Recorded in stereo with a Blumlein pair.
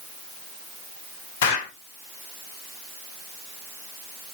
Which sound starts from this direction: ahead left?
An explosion, at 1.4 s.